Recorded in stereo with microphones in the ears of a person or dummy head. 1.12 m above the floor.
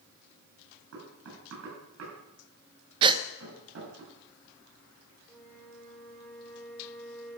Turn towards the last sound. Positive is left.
turn(degrees=5)  # may be behind; listen again after turning